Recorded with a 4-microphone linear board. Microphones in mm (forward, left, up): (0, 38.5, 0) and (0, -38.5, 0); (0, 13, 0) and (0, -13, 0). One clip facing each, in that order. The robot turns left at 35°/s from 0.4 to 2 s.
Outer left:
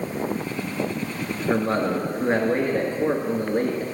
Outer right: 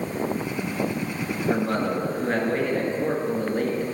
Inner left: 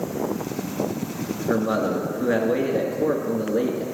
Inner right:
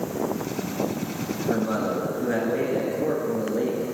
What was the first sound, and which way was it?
A man speaking, 25° left (ahead or behind).